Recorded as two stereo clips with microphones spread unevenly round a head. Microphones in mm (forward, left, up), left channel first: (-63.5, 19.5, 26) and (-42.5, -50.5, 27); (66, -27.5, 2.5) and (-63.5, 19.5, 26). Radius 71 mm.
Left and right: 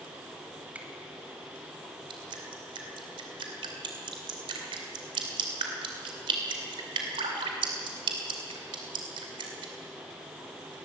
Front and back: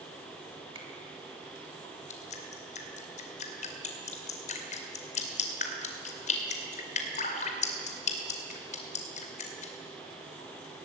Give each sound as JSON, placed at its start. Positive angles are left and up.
{"t": 0.8, "sound": "a finger snap", "azimuth_deg": -145, "distance_m": 3.0}
{"t": 2.1, "sound": "dripping", "azimuth_deg": -60, "distance_m": 2.5}